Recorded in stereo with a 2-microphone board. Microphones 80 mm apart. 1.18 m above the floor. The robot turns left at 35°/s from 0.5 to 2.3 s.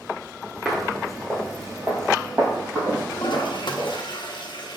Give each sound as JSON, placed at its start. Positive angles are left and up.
{"t": 0.7, "sound": "footsteps", "side_deg": 0, "distance_m": 1.2}
{"t": 3.1, "sound": "a toilet flushing", "side_deg": 75, "distance_m": 0.8}